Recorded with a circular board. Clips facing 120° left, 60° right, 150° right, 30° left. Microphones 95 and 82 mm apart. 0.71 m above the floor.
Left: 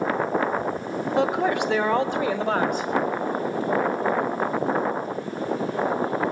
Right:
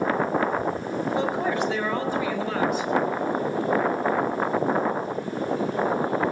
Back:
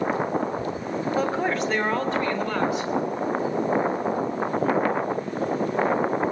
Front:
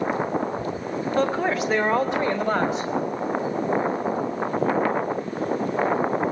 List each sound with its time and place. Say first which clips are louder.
1.2 s a man speaking: left 5 dB, front 3 dB; 130° left, 2.5 m; by 2.9 s 85° left, 3.5 m